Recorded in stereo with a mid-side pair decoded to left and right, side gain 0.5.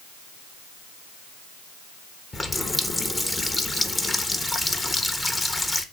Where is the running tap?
20° left, 1.0 m.